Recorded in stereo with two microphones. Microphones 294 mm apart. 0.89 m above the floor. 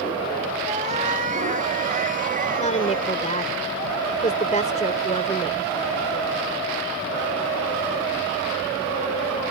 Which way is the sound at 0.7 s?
25° right (ahead or behind).